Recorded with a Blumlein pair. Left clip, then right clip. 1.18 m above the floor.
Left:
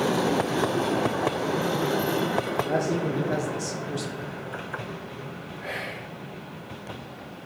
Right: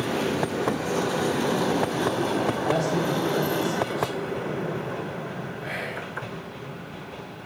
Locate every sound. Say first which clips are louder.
2.7 s a man speaking: right 2 dB; 10° right, 0.7 m; by 4.4 s 65° left, 1.3 m
5.6 s whispering: even; 5° left, 2.5 m